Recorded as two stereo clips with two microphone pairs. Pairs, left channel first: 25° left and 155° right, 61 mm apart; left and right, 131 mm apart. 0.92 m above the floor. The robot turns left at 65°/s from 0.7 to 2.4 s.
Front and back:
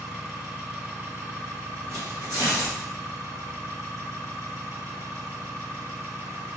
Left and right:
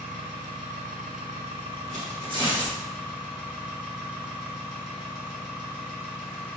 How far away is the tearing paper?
About 1.4 m.